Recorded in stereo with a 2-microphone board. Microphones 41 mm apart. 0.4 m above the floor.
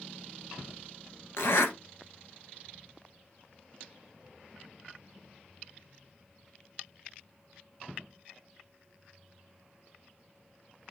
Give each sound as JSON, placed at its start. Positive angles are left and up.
{"t": 1.4, "sound": "a zipper", "side_deg": 80, "distance_m": 1.1}